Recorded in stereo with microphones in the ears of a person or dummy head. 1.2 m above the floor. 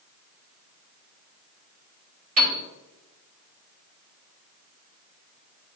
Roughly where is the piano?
Right.